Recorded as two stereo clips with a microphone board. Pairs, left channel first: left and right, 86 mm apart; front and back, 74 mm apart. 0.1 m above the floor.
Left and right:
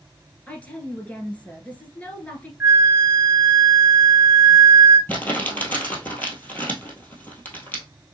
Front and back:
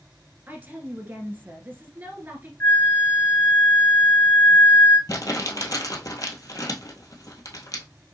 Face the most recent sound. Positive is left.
turn(degrees=25)